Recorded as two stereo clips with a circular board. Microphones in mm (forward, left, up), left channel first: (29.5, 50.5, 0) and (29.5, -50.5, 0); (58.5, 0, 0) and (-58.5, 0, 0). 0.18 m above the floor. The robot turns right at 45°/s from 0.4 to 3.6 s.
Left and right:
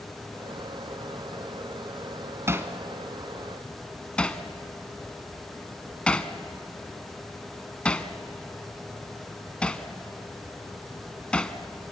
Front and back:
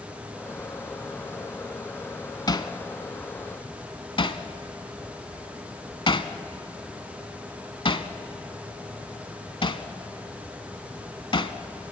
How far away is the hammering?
About 0.9 m.